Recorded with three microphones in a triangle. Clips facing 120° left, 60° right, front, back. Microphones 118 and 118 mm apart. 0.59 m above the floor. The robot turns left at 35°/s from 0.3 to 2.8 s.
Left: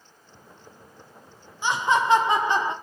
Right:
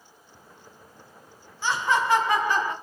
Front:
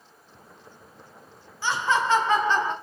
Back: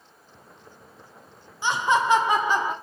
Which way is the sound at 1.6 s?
150° left.